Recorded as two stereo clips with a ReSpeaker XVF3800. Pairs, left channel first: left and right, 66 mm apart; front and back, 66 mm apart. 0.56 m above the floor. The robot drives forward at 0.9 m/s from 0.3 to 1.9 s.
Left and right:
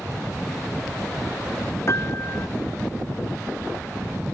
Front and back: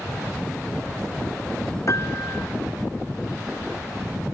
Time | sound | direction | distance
1.9 | a piano | 45° left | ?